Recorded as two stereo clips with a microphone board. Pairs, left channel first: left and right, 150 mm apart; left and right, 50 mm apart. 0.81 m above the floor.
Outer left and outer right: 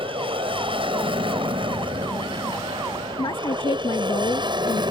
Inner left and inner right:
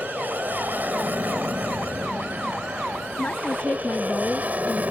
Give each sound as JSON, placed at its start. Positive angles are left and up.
{"t": 0.0, "sound": "an aircraft", "side_deg": -35}
{"t": 3.2, "sound": "a woman speaking", "side_deg": 35}